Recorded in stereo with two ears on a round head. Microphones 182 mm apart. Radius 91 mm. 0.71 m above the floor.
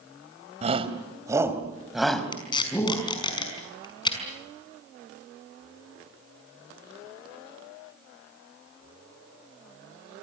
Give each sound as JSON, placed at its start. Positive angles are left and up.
{"t": 0.6, "sound": "a shout", "side_deg": -35, "distance_m": 3.0}
{"t": 2.3, "sound": "tape being pulled", "side_deg": 25, "distance_m": 5.5}